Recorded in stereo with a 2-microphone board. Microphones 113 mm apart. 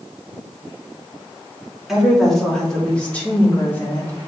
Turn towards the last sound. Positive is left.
turn(degrees=25)  # may be behind; listen again after turning